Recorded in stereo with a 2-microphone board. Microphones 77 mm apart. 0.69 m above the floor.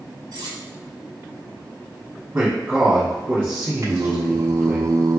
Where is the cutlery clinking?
80° right, 1.5 m.